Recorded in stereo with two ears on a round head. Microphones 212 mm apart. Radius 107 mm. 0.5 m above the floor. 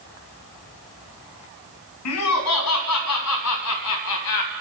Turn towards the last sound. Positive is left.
turn(degrees=75)  # may be behind; listen again after turning